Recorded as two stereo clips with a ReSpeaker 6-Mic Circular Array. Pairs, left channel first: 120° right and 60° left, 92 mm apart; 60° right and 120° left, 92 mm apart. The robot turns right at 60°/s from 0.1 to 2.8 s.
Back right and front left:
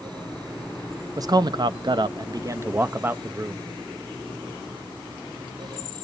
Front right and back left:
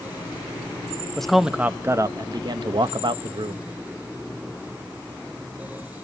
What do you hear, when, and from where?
1.2 s a man speaking: 20° left, 0.7 m; by 3.6 s 120° left, 0.7 m